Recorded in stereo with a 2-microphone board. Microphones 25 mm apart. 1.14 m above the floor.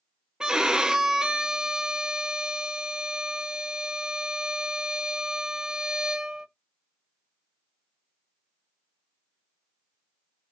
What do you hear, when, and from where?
0.4 s a violin: 35° right (ahead or behind), 0.5 m